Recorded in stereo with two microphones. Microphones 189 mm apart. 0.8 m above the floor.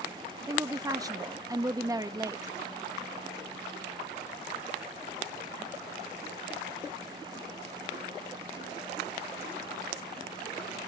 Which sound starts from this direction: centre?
A woman speaking, at 0.5 s.